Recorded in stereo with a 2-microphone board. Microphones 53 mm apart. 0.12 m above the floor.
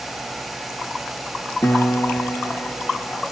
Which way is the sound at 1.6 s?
60° left (ahead or behind).